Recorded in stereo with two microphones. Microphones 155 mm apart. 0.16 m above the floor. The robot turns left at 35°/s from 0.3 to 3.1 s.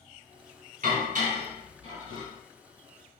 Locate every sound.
0.8 s dishes clattering: 60° right (ahead or behind), 1.6 m; by 2.3 s 35° right (ahead or behind), 1.6 m